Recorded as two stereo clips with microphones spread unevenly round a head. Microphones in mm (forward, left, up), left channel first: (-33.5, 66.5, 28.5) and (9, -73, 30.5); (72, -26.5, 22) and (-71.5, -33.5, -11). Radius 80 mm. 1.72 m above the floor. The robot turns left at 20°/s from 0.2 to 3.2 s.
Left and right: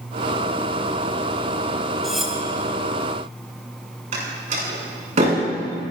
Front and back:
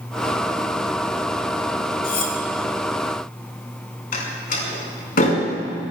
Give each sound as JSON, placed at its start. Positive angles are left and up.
{"t": 2.0, "sound": "cutlery clinking", "azimuth_deg": 20, "distance_m": 2.5}
{"t": 4.1, "sound": "a door slam", "azimuth_deg": -25, "distance_m": 6.0}